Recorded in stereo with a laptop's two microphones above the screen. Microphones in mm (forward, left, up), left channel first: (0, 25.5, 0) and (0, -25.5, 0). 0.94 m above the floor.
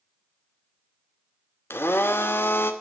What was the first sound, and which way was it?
A blender, 55° left (ahead or behind).